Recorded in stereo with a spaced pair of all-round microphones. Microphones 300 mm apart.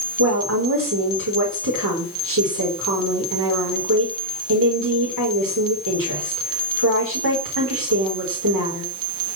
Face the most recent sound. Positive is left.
turn(degrees=-85)